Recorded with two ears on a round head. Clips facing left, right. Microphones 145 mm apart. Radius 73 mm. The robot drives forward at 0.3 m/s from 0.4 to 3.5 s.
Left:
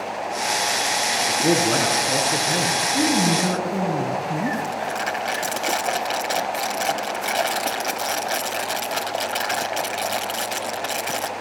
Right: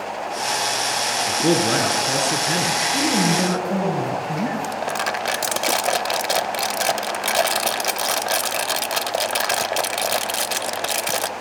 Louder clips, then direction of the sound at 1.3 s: Right 1 dB; 50° right (ahead or behind).